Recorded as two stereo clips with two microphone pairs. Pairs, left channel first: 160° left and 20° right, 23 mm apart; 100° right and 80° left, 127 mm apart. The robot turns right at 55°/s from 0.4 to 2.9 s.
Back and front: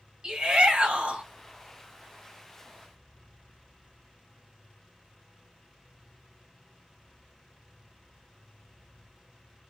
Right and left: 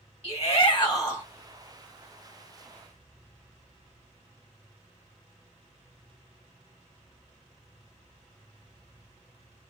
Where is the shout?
75° right, 1.5 m; by 1.2 s 25° right, 1.5 m.